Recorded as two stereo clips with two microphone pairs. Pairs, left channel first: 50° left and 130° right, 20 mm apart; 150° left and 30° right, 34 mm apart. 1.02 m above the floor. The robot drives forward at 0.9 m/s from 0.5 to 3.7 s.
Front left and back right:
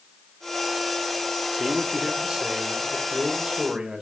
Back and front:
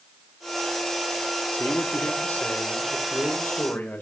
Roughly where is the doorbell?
I don't hear a doorbell.